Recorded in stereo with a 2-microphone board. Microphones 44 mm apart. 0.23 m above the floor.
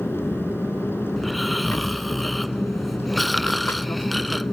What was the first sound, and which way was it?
An aircraft, 60° left (ahead or behind).